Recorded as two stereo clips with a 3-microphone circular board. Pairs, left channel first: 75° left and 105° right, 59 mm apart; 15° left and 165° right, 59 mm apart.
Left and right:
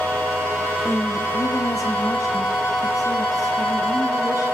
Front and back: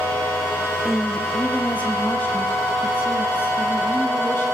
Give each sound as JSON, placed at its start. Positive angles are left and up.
{"t": 0.8, "sound": "a woman speaking", "azimuth_deg": 100, "distance_m": 1.0}